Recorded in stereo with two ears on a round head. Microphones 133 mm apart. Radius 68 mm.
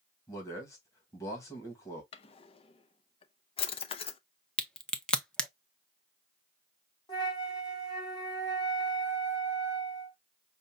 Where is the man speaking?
20° left (ahead or behind), 1.8 m.